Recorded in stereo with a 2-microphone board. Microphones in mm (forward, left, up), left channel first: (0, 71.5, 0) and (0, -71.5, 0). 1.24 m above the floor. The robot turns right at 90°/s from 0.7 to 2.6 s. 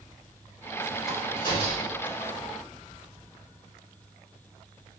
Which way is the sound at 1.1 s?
5° right (ahead or behind).